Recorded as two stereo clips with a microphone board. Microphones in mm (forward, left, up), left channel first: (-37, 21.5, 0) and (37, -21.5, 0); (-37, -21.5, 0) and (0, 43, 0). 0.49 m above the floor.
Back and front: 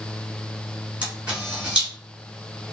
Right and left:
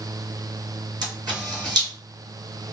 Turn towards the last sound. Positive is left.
turn(degrees=45)